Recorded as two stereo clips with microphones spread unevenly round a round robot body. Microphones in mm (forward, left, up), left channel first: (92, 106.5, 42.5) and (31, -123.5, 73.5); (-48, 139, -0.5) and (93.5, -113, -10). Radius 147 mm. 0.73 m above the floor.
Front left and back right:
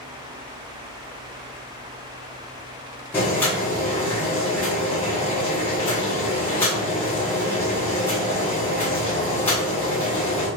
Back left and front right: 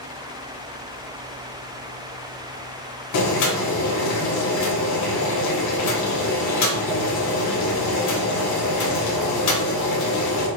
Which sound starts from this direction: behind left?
Boiling, at 3.1 s.